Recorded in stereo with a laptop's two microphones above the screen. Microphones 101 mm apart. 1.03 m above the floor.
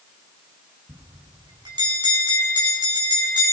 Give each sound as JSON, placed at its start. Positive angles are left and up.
{"t": 0.9, "sound": "a bell", "side_deg": -45, "distance_m": 7.0}